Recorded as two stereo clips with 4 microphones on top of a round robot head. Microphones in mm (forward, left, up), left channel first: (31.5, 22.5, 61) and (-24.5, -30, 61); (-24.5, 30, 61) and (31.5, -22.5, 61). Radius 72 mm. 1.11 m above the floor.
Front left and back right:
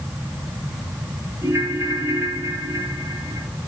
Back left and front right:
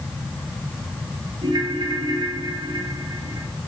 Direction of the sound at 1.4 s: 80° right.